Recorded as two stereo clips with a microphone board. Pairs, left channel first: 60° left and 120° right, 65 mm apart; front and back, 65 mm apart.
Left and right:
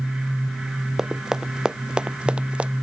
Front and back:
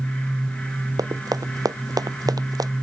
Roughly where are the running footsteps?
Behind.